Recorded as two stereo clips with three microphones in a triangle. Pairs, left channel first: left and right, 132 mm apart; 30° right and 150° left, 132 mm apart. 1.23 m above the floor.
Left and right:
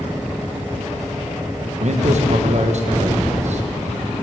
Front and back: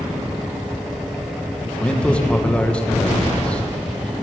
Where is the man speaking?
110° right, 1.3 m.